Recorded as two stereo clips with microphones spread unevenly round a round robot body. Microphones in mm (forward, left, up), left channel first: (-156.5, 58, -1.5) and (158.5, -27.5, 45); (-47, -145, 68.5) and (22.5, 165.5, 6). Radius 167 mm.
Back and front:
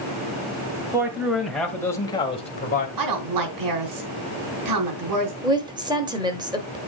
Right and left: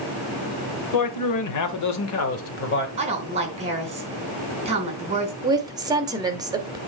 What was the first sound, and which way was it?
A man speaking, 100° right.